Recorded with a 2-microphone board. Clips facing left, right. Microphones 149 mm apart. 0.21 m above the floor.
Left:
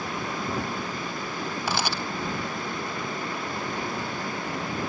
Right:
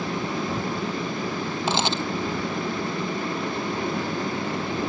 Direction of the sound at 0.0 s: 25° right (ahead or behind).